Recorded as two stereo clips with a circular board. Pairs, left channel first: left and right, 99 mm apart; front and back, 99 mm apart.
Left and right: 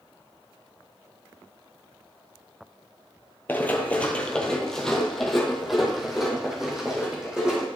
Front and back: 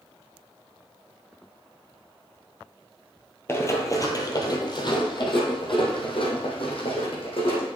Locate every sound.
3.5 s running footsteps: 35° left, 1.2 m; by 7.7 s 10° right, 3 m